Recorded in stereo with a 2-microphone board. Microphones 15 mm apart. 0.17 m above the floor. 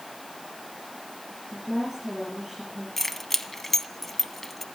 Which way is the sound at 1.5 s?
20° right (ahead or behind).